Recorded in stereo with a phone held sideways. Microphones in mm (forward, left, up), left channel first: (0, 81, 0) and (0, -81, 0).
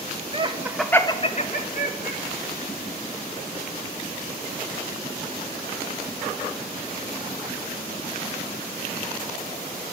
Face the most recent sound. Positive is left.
turn(degrees=65)  # may be behind; listen again after turning